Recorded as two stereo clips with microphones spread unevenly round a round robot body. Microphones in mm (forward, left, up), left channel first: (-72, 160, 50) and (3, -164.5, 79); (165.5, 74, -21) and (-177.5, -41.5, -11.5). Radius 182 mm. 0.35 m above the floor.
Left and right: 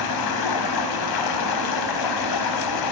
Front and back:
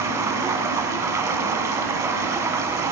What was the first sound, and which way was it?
Running water, 115° left.